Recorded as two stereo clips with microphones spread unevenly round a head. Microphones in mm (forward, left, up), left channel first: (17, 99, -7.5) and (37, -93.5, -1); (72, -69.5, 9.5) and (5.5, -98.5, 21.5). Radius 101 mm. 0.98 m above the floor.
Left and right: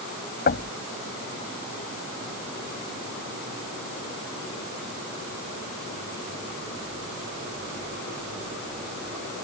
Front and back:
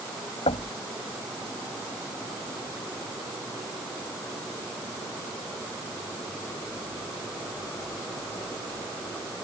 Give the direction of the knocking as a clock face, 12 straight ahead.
10 o'clock.